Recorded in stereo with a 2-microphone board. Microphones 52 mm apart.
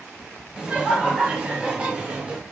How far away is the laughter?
About 3 m.